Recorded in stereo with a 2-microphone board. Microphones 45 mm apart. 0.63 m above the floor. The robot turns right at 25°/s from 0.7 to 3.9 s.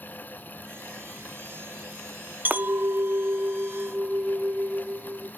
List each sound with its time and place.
2.5 s a clink: 60° right, 0.5 m; by 5.3 s 20° right, 0.5 m